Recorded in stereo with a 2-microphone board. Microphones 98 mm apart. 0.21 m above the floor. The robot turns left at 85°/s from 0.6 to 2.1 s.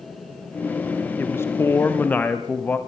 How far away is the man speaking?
About 1.0 m.